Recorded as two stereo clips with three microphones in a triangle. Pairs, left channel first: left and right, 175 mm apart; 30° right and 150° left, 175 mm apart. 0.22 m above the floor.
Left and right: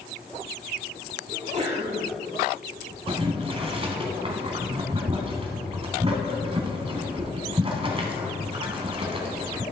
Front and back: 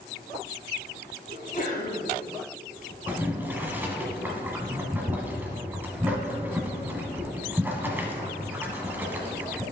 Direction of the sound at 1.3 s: 50° right.